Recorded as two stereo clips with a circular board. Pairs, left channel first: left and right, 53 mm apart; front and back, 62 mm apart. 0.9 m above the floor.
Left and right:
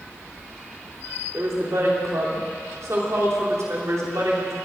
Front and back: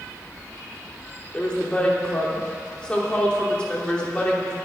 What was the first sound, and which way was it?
A woman speaking, 75° right.